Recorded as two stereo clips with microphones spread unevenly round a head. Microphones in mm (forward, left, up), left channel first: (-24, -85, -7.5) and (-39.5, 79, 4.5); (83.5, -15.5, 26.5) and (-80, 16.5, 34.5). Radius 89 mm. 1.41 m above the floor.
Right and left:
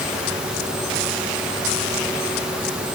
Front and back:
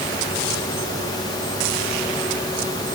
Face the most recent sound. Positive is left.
No sound to turn to.